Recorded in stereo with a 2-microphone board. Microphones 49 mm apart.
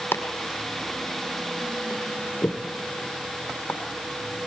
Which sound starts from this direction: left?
Chopping, at 0.1 s.